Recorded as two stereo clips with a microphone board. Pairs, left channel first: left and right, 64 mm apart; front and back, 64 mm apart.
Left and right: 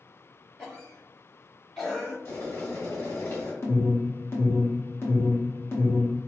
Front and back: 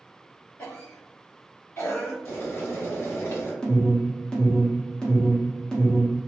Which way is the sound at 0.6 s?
20° left.